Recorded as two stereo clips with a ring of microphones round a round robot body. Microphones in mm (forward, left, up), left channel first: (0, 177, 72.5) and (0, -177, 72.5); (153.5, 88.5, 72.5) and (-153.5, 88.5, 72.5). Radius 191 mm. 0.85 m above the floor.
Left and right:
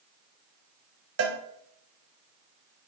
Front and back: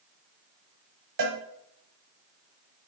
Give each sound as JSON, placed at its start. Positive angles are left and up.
{"t": 1.2, "sound": "a cowbell", "azimuth_deg": -140, "distance_m": 1.2}